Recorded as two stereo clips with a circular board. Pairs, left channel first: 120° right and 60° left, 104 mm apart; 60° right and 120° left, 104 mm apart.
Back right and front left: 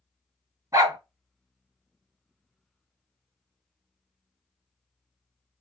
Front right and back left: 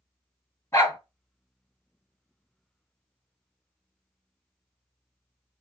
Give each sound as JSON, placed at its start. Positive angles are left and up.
{"t": 0.7, "sound": "a dog barking", "azimuth_deg": 5, "distance_m": 1.7}